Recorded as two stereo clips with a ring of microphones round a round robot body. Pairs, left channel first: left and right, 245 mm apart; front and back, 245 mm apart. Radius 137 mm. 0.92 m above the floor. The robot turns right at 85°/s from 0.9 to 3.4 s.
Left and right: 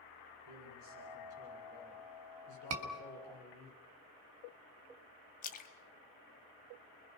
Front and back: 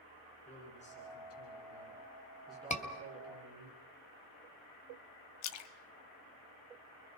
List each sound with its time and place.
0.5 s a man speaking: 60° right, 10 m; by 3.7 s 150° left, 10 m
2.7 s a scream: 60° right, 2.5 m; by 2.9 s 45° right, 2.5 m
5.4 s a splash: 30° left, 0.9 m